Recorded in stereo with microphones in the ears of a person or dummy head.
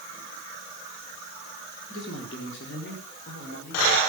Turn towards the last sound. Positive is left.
turn(degrees=50)  # may be behind; listen again after turning